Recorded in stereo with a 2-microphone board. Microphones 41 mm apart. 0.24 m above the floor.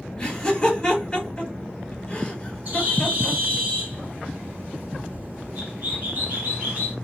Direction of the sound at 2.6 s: 40° right (ahead or behind).